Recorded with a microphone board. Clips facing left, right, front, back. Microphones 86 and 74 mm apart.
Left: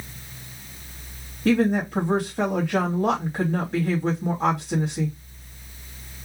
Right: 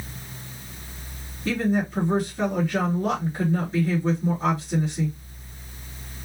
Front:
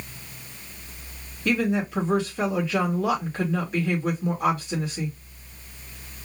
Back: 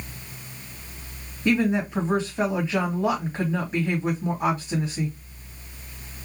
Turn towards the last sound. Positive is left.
turn(degrees=105)